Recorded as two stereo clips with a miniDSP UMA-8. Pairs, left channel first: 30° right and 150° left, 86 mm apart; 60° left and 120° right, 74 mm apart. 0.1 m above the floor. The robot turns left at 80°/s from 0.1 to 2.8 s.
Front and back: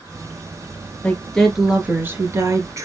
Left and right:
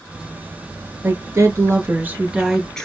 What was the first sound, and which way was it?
A woman speaking, 85° right.